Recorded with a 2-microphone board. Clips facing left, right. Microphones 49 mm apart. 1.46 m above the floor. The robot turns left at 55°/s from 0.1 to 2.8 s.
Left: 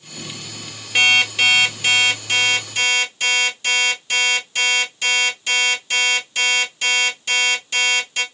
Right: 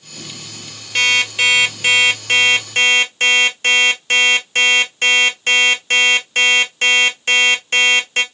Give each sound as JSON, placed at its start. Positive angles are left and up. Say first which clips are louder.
{"t": 0.9, "sound": "an alarm clock", "louder": "even", "azimuth_deg": 15, "distance_m": 1.1}